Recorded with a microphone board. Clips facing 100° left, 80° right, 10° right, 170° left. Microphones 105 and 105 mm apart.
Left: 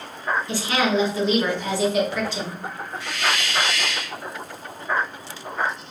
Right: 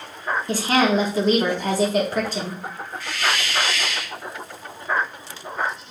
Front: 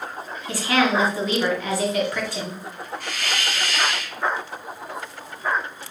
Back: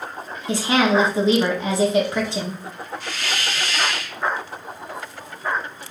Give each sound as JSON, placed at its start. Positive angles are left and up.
{"t": 0.5, "sound": "a woman speaking", "azimuth_deg": -125, "distance_m": 1.3}
{"t": 3.0, "sound": "a hiss", "azimuth_deg": 30, "distance_m": 1.5}